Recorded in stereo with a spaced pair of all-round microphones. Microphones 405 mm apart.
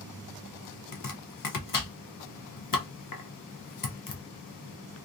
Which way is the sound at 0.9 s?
55° left (ahead or behind).